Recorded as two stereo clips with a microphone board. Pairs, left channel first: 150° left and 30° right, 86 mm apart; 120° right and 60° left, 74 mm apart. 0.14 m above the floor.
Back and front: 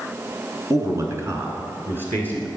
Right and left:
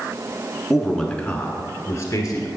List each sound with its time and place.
0.7 s a man speaking: 25° right, 1.3 m; by 2.5 s 95° right, 1.7 m